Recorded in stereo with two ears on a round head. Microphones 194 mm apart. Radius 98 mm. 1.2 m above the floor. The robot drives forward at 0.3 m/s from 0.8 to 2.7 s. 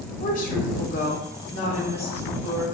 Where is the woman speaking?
40° left (ahead or behind), 0.9 m; by 2.6 s 25° left (ahead or behind), 1.3 m.